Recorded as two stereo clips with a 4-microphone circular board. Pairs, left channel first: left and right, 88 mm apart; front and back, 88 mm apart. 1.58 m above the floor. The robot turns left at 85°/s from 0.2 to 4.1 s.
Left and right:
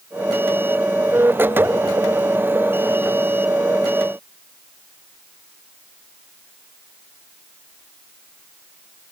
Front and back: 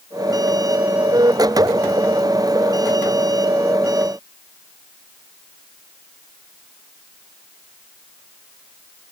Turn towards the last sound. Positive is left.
No sound to turn to.